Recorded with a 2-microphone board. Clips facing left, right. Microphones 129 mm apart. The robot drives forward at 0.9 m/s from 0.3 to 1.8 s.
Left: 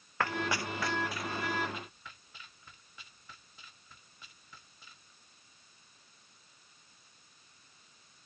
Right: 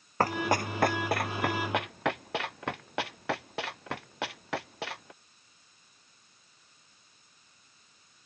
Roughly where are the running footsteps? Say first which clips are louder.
Right 6 dB; right.